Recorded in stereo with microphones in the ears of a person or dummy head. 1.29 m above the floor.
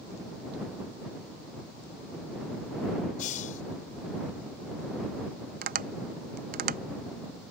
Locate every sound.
3.2 s a hiss: 45° left (ahead or behind)
5.6 s tapping: 45° right (ahead or behind)